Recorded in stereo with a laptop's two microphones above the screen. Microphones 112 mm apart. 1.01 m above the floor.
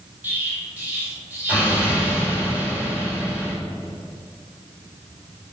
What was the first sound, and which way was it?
An explosion, 15° right (ahead or behind).